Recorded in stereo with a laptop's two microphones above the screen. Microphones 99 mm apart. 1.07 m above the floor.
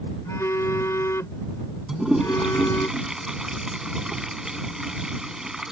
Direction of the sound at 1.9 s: 5° right (ahead or behind).